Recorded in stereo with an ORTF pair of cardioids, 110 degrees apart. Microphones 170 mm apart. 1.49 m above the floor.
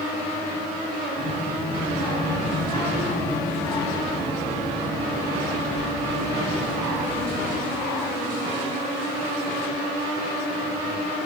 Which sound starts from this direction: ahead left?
A child speaking, at 1.2 s.